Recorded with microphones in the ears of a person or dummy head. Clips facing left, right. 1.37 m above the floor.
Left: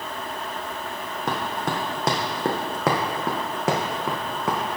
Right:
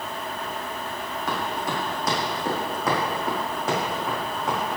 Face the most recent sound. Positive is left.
turn(degrees=65)  # may be behind; listen again after turning